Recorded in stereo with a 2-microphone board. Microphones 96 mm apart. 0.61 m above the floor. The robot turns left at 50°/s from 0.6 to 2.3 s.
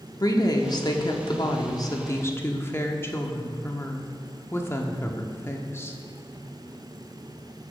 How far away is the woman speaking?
About 1.0 m.